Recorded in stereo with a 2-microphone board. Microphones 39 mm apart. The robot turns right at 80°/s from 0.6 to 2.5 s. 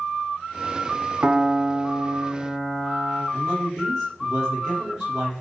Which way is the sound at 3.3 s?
5° left (ahead or behind).